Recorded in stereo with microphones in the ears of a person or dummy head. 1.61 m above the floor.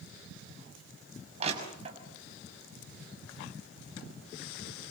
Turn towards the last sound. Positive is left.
turn(degrees=-35)  # may be behind; listen again after turning